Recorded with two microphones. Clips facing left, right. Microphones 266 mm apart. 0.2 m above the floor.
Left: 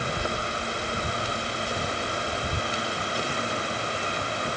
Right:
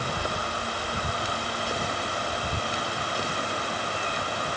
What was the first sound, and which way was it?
Only background noise.